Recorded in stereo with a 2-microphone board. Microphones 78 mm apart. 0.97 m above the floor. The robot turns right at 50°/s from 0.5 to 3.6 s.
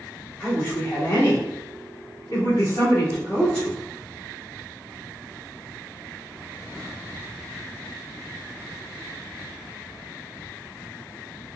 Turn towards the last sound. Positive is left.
turn(degrees=10)  # may be behind; listen again after turning